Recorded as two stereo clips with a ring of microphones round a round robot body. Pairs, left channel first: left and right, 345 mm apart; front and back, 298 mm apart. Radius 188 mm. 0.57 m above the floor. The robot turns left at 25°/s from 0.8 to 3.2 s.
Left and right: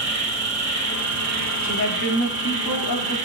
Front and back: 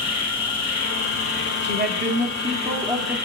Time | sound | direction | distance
0.0 | an insect | 35° right | 2 m
1.6 | a woman speaking | 135° left | 1.9 m